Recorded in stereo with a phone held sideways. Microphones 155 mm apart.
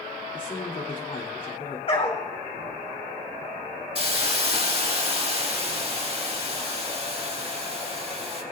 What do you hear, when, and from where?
0.3 s a man speaking: 60° left (ahead or behind), 2.5 m
1.9 s a dog barking: 40° left (ahead or behind), 2 m
4.0 s a hiss: 40° right (ahead or behind), 1.8 m